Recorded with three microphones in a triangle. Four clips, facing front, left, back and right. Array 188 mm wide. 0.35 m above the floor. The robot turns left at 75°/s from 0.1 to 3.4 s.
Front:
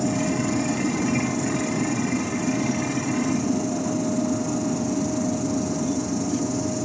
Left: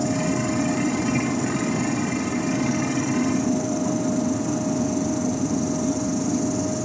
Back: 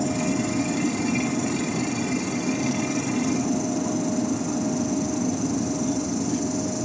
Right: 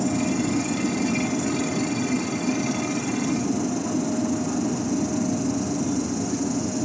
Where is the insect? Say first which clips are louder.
Even, front 1 dB; 10° left, 5 m; by 6.8 s 125° left, 5 m.